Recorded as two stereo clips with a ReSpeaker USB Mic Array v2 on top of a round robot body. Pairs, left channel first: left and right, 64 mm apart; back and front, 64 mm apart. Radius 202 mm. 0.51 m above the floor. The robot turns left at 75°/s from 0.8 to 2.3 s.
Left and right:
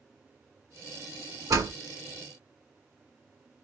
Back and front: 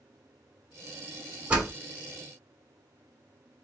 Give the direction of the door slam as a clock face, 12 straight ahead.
2 o'clock.